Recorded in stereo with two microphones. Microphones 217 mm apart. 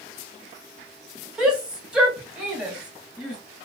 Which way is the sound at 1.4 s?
5° right (ahead or behind).